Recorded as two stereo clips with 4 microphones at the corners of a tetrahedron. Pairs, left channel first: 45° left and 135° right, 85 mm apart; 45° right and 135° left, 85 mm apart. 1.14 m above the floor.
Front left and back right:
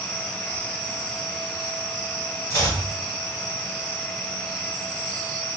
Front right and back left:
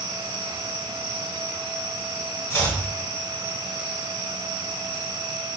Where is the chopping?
Straight ahead, 1.1 m.